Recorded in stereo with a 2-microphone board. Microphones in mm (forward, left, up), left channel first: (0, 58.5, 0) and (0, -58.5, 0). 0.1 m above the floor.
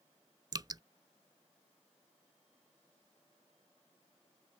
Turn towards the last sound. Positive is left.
turn(degrees=-35)  # may be behind; listen again after turning